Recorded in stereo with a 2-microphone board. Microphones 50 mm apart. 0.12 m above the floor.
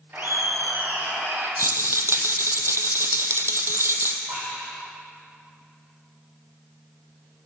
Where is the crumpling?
No crumpling in this recording.